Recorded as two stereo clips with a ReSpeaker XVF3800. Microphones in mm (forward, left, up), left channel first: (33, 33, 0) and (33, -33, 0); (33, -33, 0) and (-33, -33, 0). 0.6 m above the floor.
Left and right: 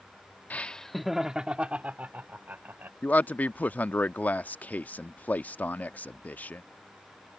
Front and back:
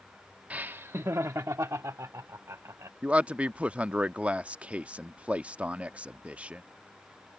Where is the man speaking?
130° left.